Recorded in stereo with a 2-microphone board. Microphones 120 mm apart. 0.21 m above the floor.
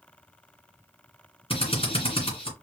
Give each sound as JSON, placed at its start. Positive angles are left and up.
{"t": 1.5, "sound": "a drill", "side_deg": 50, "distance_m": 2.5}